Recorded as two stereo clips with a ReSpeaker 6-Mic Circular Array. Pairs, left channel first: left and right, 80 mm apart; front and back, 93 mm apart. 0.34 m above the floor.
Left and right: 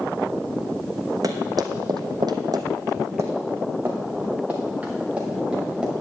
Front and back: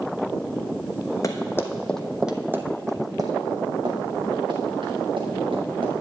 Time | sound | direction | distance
1.2 | running footsteps | 50° right | 1.2 m